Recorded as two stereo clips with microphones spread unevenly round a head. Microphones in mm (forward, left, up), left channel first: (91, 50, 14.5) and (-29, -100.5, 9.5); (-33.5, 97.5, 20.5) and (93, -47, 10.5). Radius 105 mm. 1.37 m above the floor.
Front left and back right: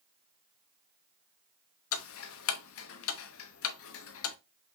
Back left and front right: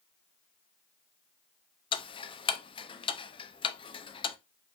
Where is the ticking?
65° left, 0.5 m.